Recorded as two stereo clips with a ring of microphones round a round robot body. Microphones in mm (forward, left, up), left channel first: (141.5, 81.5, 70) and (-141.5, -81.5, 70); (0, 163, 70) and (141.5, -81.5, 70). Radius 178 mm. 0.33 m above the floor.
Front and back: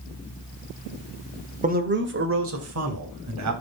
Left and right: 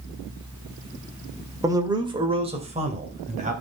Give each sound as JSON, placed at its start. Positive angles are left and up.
{"t": 1.6, "sound": "a man speaking", "azimuth_deg": -125, "distance_m": 1.6}